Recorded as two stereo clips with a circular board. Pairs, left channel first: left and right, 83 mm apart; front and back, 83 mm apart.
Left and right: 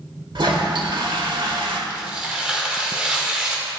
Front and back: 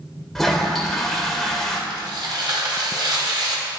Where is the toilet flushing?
85° right, 1.3 m.